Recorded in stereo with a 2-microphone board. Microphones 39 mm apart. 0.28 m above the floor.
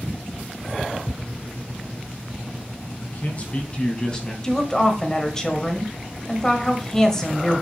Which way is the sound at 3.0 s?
45° left (ahead or behind).